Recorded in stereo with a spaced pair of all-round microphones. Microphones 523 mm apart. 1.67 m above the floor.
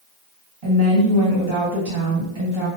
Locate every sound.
0.6 s a woman speaking: 85° right, 1.3 m